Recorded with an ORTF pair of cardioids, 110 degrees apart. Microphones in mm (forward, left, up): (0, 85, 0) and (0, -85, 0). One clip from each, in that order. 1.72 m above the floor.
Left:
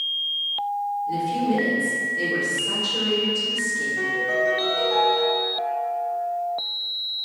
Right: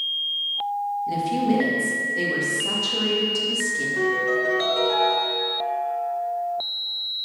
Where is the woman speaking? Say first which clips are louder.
Right 1 dB; 65° right, 1.9 m.